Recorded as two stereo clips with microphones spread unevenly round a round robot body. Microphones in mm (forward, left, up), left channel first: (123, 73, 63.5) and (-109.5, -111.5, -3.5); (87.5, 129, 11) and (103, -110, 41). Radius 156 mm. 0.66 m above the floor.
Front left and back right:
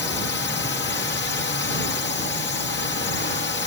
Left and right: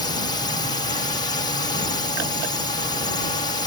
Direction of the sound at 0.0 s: 70° left.